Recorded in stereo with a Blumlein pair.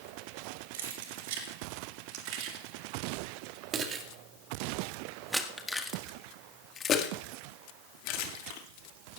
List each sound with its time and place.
0.7 s keys jangling: 55° right, 3 m; by 8.6 s 50° left, 2.5 m